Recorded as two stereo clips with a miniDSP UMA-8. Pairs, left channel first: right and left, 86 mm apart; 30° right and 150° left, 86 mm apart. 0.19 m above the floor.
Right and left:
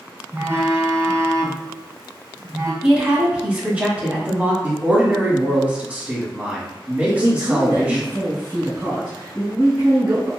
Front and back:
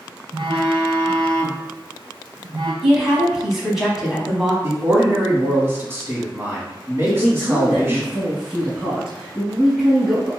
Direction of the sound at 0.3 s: 145° left.